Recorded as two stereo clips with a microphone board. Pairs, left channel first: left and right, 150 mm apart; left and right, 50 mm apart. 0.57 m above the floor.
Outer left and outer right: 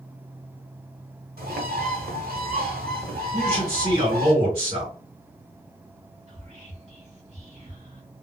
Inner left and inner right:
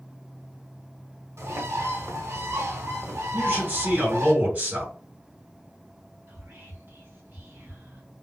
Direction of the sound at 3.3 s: 35° right (ahead or behind).